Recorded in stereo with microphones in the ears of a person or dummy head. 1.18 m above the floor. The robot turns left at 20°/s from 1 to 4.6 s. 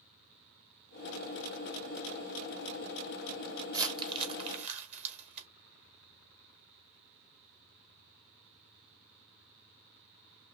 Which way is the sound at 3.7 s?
20° right (ahead or behind).